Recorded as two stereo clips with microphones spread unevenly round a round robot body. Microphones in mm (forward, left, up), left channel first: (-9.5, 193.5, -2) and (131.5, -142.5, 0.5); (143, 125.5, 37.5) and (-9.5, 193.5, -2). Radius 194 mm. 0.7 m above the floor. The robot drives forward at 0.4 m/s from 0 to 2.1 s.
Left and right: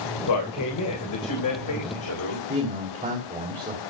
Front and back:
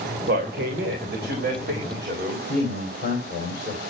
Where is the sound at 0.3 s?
160° left, 3 m; by 2.4 s 165° left, 4 m.